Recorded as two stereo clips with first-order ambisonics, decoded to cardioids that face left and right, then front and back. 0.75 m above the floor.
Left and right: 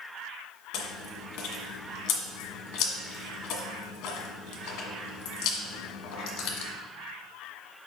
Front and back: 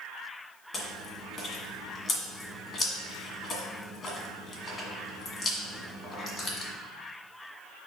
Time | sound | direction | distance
0.7 | chewing | 70° left | 1.6 m